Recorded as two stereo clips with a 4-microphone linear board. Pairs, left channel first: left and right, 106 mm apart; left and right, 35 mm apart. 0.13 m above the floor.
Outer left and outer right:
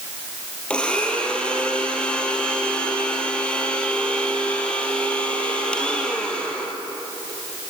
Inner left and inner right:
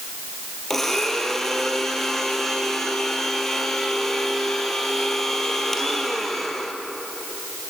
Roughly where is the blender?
Centre.